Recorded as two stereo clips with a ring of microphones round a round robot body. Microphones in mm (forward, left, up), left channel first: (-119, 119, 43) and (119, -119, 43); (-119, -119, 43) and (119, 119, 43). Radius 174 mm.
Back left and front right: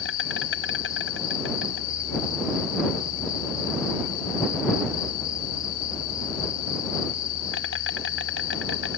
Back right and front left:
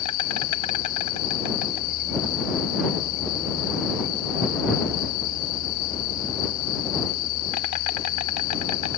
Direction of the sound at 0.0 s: 170° right.